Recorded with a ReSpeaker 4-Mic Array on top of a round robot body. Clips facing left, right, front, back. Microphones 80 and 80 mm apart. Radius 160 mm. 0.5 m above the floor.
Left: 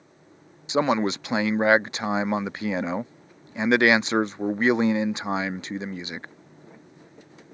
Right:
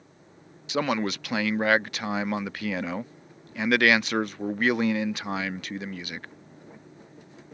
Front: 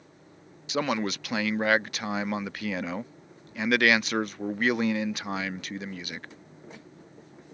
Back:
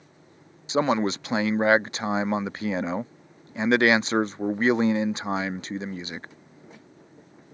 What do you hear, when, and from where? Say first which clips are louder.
0.7 s a man speaking: left 4 dB, back 5 dB; 140° left